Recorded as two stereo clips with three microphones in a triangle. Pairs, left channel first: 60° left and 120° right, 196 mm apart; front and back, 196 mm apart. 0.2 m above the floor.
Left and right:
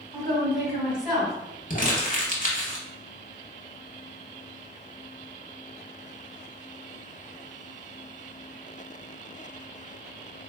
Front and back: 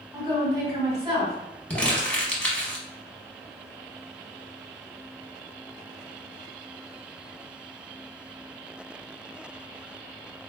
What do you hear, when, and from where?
0.1 s a woman speaking: 155° left, 1.5 m
1.7 s crumpling: 80° left, 0.7 m